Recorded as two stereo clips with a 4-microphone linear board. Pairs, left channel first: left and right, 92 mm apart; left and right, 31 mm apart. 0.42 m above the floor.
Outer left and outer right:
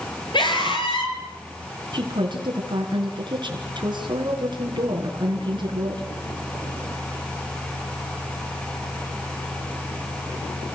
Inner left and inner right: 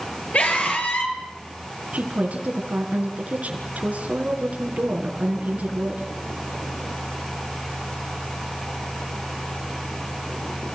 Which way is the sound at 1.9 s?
55° right (ahead or behind).